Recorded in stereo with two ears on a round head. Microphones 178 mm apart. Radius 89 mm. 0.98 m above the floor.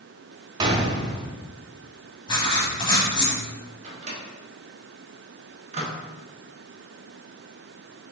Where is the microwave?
35° right (ahead or behind), 0.8 m.